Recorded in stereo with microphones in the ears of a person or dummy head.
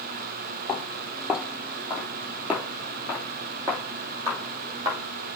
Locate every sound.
0.7 s footsteps: 10° left (ahead or behind), 2.5 m; by 5.0 s 10° right (ahead or behind), 5 m